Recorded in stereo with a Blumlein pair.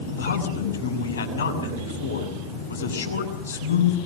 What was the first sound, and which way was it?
A man speaking, 65° left.